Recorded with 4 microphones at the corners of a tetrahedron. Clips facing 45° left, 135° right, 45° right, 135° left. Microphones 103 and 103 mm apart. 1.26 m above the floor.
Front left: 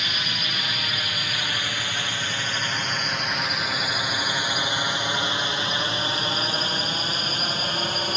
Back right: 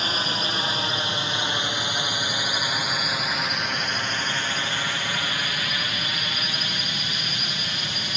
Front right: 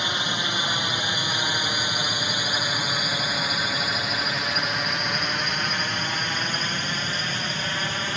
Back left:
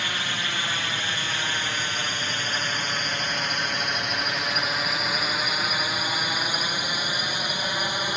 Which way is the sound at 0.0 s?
105° right.